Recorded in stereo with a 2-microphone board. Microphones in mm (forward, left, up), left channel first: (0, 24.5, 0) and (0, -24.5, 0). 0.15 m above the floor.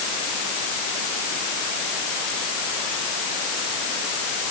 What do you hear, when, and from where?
Only background noise.